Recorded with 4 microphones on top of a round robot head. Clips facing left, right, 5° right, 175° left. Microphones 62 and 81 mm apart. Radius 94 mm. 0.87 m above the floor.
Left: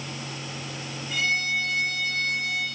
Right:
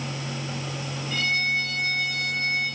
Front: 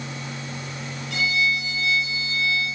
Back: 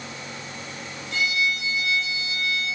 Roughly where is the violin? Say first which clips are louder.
Even, front 1 dB; ahead.